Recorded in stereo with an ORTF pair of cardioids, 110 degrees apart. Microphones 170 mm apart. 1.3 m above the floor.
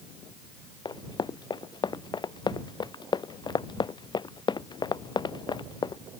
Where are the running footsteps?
30° left.